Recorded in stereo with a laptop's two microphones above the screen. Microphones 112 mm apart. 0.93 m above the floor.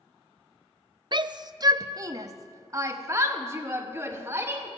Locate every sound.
1.1 s a shout: 45° right (ahead or behind), 0.5 m; by 4.7 s 25° right (ahead or behind), 2.5 m